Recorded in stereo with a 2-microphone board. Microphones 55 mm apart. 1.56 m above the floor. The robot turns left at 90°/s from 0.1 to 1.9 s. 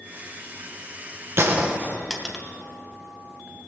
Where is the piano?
No piano in this recording.